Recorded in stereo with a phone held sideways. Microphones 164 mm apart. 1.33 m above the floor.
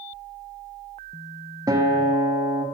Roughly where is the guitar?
Right.